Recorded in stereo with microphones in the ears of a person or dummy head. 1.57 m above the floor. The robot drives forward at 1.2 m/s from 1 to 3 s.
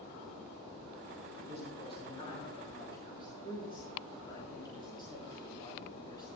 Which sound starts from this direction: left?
A man speaking, at 1.4 s.